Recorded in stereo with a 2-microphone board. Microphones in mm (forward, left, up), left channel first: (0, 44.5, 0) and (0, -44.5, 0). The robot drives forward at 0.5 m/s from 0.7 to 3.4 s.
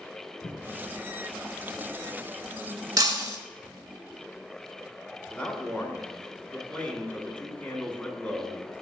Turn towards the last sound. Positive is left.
turn(degrees=20)  # may be behind; listen again after turning